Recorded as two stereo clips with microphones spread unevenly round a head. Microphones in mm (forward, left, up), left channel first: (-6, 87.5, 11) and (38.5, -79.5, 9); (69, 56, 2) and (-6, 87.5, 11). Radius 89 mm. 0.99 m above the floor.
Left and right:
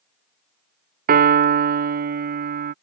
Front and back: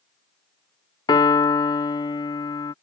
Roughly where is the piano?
Ahead right.